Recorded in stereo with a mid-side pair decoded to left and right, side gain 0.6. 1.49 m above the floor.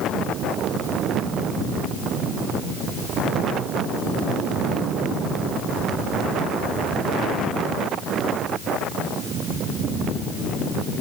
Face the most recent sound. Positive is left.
No sound to turn to.